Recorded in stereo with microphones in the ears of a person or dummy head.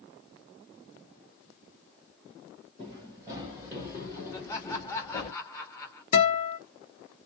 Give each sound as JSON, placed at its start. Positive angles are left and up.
{"t": 2.8, "sound": "running footsteps", "side_deg": -20, "distance_m": 1.8}
{"t": 4.3, "sound": "laughter", "side_deg": 15, "distance_m": 0.7}
{"t": 6.1, "sound": "a guitar", "side_deg": 40, "distance_m": 1.0}